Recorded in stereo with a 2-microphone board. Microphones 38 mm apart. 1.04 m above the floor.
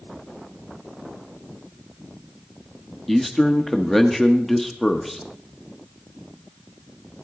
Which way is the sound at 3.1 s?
5° left (ahead or behind).